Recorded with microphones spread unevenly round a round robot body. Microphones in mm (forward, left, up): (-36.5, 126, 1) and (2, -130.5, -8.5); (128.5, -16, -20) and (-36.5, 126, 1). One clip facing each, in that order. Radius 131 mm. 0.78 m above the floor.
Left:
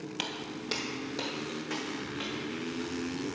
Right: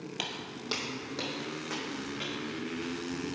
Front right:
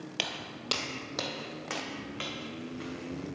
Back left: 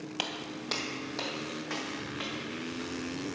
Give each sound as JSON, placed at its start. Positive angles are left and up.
{"t": 0.2, "sound": "footsteps", "azimuth_deg": 15, "distance_m": 0.8}